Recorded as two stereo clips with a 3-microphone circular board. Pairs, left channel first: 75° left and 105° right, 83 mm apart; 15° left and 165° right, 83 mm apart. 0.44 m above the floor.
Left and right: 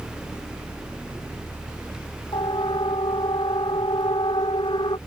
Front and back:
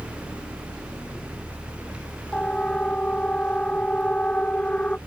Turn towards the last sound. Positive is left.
turn(degrees=90)